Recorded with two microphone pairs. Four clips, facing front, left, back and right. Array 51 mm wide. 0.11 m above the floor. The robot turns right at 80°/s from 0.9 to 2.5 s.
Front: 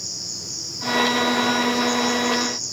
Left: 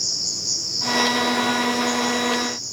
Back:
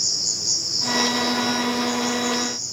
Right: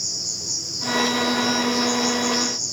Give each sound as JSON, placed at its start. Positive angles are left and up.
{"t": 0.0, "sound": "an insect", "azimuth_deg": 160, "distance_m": 7.5}